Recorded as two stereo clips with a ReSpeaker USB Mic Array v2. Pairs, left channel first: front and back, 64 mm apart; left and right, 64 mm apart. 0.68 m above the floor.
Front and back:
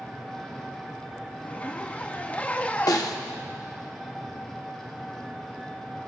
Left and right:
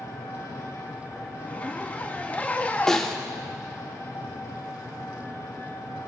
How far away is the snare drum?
About 0.8 m.